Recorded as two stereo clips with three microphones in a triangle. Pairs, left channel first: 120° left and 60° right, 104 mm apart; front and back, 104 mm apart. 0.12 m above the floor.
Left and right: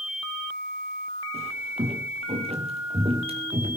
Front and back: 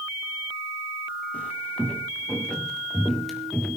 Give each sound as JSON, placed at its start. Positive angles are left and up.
{"t": 1.3, "sound": "footsteps", "azimuth_deg": -75, "distance_m": 4.0}